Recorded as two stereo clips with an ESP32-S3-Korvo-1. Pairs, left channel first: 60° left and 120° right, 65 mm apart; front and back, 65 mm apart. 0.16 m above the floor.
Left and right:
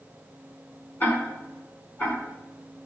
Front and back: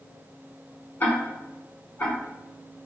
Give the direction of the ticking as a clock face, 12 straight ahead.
11 o'clock.